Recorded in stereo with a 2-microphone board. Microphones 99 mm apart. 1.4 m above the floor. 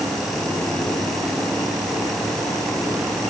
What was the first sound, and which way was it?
Only background noise.